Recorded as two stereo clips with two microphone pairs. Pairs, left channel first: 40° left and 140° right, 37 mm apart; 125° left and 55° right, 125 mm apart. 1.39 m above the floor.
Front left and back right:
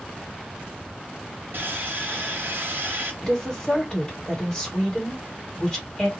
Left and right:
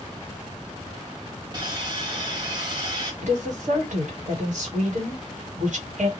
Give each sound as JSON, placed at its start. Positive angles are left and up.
{"t": 1.5, "sound": "sawing", "azimuth_deg": -110, "distance_m": 1.2}
{"t": 3.2, "sound": "a woman speaking", "azimuth_deg": -35, "distance_m": 1.5}